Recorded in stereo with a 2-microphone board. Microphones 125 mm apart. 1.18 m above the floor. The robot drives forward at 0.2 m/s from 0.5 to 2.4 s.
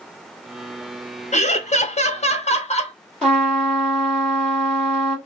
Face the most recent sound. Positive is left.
turn(degrees=10)  # may be behind; listen again after turning